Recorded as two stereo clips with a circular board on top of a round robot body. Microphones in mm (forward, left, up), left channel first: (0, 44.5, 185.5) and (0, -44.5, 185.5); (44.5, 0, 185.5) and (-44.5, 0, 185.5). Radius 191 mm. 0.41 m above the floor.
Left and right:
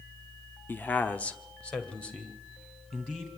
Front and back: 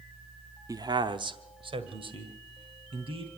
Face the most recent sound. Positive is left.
turn(degrees=170)